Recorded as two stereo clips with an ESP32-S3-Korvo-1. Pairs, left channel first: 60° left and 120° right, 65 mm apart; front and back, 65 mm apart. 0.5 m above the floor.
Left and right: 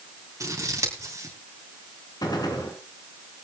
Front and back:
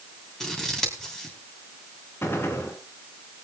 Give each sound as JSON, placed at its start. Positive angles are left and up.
{"t": 0.4, "sound": "scissors", "azimuth_deg": -85, "distance_m": 2.5}
{"t": 2.2, "sound": "a gunshot", "azimuth_deg": 50, "distance_m": 2.5}